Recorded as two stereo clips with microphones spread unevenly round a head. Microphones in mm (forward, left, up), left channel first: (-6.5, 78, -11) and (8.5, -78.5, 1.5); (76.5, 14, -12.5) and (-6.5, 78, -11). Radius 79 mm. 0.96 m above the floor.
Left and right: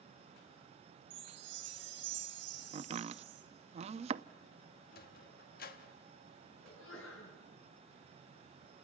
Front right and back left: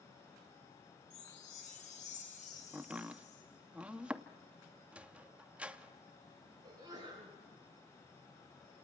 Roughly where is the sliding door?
Ahead left.